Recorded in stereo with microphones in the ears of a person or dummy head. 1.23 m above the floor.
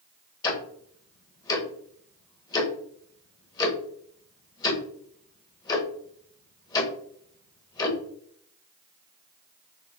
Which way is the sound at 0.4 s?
20° left (ahead or behind).